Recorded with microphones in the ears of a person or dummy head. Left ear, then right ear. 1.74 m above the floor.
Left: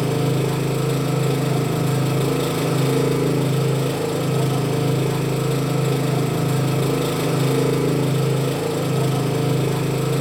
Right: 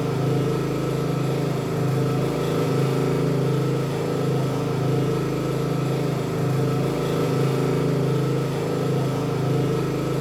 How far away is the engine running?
About 0.8 m.